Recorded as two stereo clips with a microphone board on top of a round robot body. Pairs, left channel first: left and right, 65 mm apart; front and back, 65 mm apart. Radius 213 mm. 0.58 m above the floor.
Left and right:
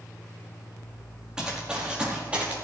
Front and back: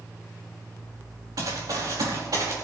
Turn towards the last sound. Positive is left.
turn(degrees=-160)